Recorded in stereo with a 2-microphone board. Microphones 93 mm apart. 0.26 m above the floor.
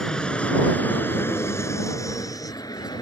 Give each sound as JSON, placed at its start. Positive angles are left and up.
{"t": 0.0, "sound": "an aircraft", "side_deg": 10}